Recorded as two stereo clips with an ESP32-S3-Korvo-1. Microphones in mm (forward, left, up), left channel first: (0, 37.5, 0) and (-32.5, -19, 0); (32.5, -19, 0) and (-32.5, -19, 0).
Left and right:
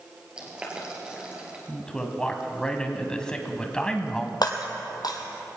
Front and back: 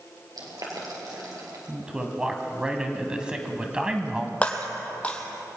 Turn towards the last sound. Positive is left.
turn(degrees=70)